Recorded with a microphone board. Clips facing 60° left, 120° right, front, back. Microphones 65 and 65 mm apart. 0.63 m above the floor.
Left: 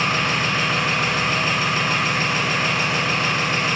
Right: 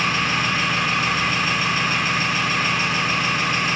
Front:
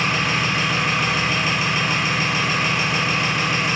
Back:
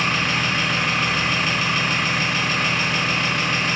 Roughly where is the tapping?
I don't hear tapping.